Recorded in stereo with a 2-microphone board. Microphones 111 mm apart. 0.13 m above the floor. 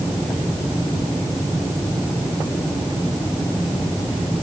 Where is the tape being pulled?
I don't hear tape being pulled.